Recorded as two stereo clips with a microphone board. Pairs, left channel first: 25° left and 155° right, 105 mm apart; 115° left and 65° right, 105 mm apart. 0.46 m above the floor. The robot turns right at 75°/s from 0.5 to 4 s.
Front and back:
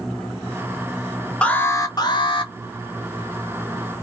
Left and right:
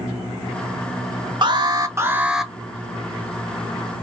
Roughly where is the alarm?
Ahead right.